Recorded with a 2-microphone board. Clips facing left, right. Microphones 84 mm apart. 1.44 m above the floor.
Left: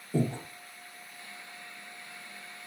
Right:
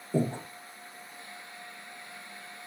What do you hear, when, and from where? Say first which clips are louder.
0.1 s breathing: right 1 dB; 20° right (ahead or behind), 0.5 m